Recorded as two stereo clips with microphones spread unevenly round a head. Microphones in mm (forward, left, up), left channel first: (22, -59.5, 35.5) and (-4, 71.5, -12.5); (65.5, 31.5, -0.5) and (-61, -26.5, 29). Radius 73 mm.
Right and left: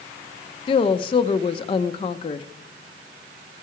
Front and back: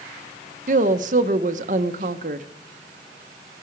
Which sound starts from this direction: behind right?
A woman speaking, at 0.7 s.